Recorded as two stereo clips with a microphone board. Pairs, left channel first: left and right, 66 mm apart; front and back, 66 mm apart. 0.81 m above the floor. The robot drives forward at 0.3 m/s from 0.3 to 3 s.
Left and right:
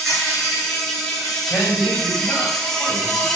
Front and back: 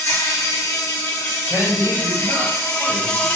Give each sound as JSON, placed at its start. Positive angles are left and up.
{"t": 0.0, "sound": "an insect", "azimuth_deg": 5, "distance_m": 1.3}
{"t": 1.5, "sound": "a man speaking", "azimuth_deg": 165, "distance_m": 1.3}